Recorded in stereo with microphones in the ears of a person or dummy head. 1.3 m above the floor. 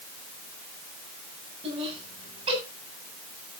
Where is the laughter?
30° right (ahead or behind), 10 m.